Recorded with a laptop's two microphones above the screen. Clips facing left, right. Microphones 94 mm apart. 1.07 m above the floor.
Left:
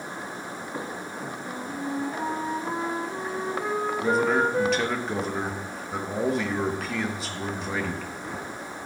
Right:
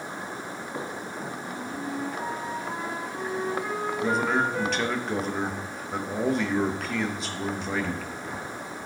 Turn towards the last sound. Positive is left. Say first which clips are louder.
# left 2 dB
turn(degrees=0)  # may be behind; listen again after turning